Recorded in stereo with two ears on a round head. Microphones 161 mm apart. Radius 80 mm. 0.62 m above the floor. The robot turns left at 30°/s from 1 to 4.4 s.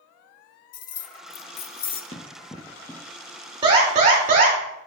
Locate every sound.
0.7 s keys jangling: 50° left (ahead or behind), 0.5 m; by 2.0 s 30° left (ahead or behind), 0.5 m
2.1 s running footsteps: 35° left (ahead or behind), 1.1 m; by 3.0 s 10° left (ahead or behind), 1.1 m
3.6 s an alarm: 30° right (ahead or behind), 2 m; by 4.6 s 50° right (ahead or behind), 2 m